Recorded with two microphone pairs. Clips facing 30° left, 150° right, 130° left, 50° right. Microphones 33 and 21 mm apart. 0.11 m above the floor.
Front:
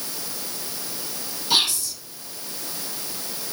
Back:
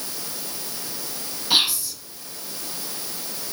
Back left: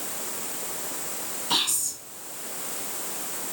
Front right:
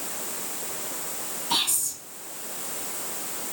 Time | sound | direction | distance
1.5 | whispering | 170° left | 1.2 m